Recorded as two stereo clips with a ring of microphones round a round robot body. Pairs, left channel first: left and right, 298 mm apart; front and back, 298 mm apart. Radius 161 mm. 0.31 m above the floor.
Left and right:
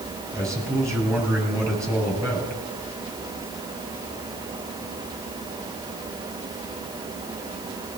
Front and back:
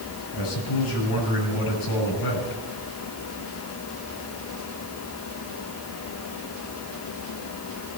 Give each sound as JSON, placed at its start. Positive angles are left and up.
{"t": 0.3, "sound": "a man speaking", "azimuth_deg": -10, "distance_m": 7.0}